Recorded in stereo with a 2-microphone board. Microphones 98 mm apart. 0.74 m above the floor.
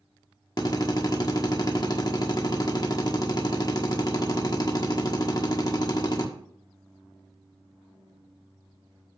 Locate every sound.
0.6 s a drill: 45° left (ahead or behind), 1.4 m